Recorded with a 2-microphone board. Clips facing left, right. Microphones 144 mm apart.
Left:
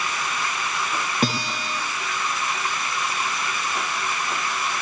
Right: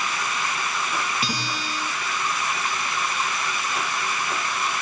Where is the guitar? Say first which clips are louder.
Left 4 dB; 45° left (ahead or behind), 7 m.